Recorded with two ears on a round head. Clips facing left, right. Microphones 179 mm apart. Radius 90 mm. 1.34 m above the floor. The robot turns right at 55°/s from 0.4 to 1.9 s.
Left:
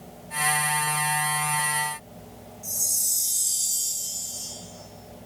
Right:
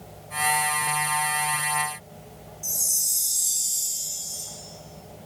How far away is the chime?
About 2 m.